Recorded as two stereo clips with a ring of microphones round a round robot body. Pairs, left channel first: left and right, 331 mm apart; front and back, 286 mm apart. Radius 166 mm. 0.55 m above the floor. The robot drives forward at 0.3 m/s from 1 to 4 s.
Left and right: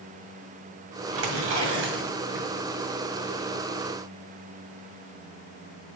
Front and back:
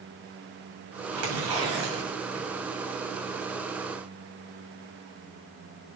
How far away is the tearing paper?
About 1.9 m.